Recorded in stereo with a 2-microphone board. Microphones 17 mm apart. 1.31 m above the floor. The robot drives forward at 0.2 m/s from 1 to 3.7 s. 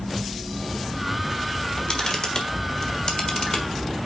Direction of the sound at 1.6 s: 55° left (ahead or behind).